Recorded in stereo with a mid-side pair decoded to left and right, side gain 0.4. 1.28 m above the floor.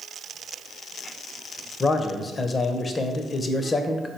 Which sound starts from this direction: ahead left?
A man speaking, at 1.8 s.